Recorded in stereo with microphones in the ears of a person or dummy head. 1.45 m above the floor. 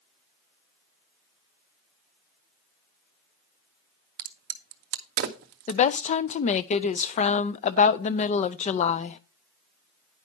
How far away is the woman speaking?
About 0.5 m.